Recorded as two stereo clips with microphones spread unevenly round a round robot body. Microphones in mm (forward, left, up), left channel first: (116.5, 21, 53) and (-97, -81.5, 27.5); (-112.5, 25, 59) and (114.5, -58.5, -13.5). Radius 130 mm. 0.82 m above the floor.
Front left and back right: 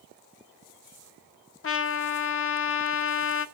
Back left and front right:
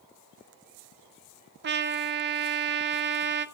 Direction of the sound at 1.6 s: Straight ahead.